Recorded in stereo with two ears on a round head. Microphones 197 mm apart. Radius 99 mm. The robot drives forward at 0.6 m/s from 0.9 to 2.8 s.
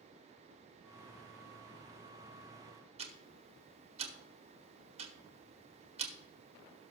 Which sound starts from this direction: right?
Ticking, at 3.0 s.